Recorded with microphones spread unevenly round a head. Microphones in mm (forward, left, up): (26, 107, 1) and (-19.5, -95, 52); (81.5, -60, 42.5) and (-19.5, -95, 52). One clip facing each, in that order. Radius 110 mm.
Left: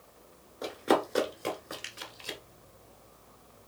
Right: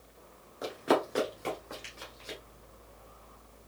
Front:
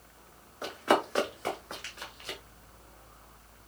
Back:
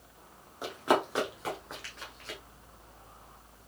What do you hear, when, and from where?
0.6 s running footsteps: 140° right, 1.3 m; by 2.4 s 90° left, 1.2 m